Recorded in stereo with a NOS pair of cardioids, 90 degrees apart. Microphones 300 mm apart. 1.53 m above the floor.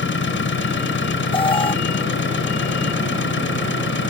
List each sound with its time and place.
0.0 s an engine running: 40° left
1.3 s an alarm: 15° left